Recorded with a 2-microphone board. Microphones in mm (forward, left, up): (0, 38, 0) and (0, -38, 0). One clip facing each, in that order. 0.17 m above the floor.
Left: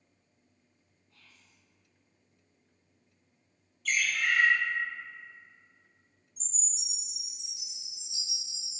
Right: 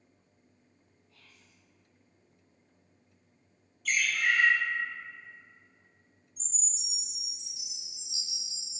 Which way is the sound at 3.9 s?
5° right (ahead or behind).